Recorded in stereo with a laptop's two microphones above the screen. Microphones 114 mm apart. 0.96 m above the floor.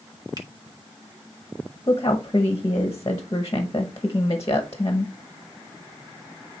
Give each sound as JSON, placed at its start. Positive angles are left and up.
{"t": 0.4, "sound": "a finger snap", "side_deg": -40, "distance_m": 2.0}
{"t": 1.9, "sound": "a woman speaking", "side_deg": 30, "distance_m": 0.9}